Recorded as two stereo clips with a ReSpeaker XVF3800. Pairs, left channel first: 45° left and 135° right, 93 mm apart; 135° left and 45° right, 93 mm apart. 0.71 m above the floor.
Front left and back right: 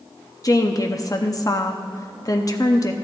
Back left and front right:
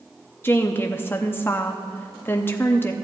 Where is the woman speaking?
75° left, 0.6 m.